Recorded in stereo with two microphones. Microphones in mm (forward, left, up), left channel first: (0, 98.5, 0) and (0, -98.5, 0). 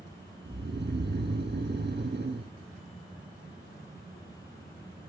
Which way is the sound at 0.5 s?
60° right (ahead or behind).